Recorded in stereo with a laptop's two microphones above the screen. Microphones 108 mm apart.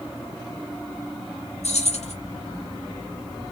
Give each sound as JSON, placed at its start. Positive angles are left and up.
{"t": 1.6, "sound": "keys jangling", "side_deg": 85, "distance_m": 0.9}